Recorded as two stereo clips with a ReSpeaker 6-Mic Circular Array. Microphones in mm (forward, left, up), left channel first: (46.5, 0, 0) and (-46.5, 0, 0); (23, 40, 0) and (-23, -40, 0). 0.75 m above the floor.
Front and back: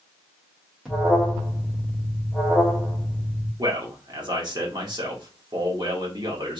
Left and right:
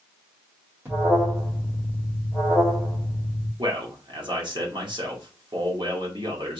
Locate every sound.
0.8 s an alarm: 100° right, 1.8 m
3.6 s a man speaking: 150° right, 1.8 m